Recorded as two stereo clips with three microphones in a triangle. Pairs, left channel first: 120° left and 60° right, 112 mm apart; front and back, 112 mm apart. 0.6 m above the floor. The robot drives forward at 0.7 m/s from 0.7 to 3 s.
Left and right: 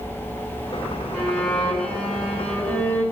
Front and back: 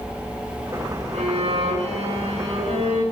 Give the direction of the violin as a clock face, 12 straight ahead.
5 o'clock.